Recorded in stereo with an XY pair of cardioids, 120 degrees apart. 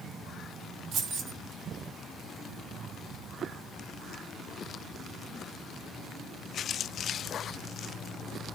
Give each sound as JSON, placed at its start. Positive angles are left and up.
{"t": 0.9, "sound": "keys jangling", "azimuth_deg": -70, "distance_m": 2.0}